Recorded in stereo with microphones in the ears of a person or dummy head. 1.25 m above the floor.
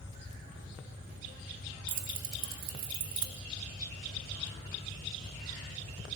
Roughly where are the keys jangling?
Right.